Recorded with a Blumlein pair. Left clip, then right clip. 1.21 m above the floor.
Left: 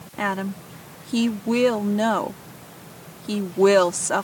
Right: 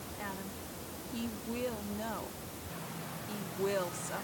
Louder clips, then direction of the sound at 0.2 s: Left 18 dB; 50° left.